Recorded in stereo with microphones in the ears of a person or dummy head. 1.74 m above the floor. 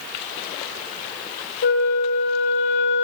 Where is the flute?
70° left (ahead or behind), 3.5 m.